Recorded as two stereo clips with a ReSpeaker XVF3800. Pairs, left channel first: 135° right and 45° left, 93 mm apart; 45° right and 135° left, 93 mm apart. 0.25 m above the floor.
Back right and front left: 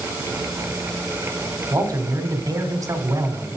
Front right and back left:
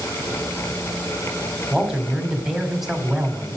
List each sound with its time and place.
1.7 s a man speaking: 50° left, 1.5 m